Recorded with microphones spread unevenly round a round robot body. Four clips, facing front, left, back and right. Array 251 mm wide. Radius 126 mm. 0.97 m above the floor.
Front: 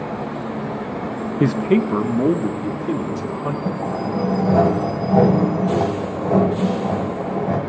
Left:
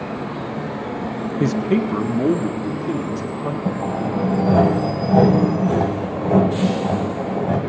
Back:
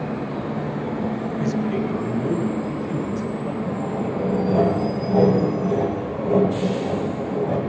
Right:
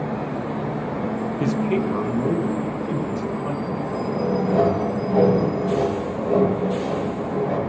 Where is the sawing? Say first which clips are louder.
Left 3 dB, front 2 dB; 45° left, 2.5 m.